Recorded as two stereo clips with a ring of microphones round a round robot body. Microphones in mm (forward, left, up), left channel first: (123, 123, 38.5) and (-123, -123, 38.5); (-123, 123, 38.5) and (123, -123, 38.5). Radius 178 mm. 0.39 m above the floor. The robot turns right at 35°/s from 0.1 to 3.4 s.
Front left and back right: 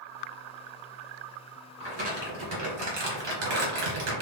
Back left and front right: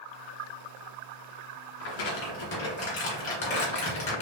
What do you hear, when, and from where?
1.8 s crumpling: 150° left, 2 m; by 4.2 s 155° right, 2 m